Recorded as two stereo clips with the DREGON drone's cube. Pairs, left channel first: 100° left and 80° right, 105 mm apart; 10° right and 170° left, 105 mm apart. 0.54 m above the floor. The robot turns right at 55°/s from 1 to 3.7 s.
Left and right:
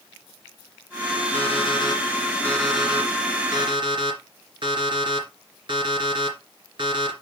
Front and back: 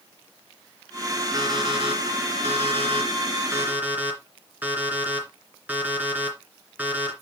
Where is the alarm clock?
115° left, 3 m; by 7.1 s 115° right, 3 m.